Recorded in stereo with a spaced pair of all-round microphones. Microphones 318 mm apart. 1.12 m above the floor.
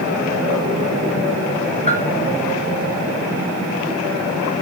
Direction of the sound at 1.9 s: 20° left (ahead or behind).